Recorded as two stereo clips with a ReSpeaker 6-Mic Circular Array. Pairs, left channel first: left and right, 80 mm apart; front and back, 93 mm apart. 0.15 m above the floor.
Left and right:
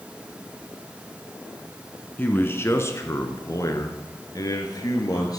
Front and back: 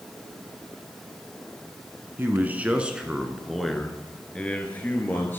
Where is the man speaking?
135° left, 1.2 m; by 5.4 s 65° left, 2 m.